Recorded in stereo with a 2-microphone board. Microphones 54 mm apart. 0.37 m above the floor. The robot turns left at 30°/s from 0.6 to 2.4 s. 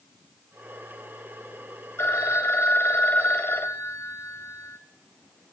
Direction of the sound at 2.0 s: 55° left (ahead or behind).